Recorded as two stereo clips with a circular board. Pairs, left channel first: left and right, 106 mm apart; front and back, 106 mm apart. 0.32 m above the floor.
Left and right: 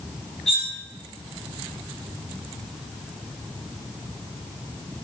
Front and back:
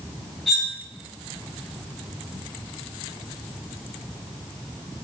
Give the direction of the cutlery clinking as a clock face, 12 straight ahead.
9 o'clock.